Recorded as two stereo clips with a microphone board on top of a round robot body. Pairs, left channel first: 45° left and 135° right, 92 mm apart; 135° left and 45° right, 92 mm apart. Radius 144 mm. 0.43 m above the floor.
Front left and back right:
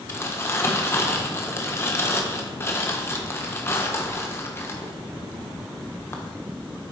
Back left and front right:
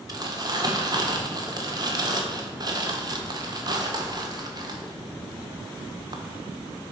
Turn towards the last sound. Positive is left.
turn(degrees=-15)